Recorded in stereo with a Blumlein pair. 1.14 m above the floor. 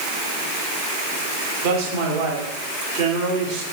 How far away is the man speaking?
About 2 m.